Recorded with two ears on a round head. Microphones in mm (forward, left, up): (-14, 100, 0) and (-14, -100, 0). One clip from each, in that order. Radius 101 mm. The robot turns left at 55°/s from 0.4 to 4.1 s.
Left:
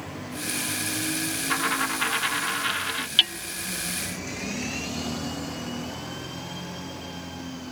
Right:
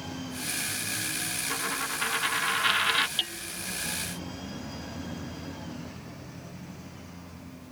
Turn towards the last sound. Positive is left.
turn(degrees=35)  # may be behind; listen again after turning